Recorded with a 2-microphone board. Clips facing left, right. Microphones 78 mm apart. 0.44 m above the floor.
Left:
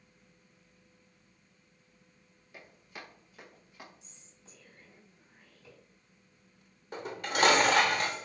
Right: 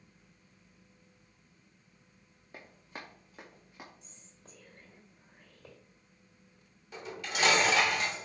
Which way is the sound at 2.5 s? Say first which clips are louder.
Right 2 dB; 40° right (ahead or behind).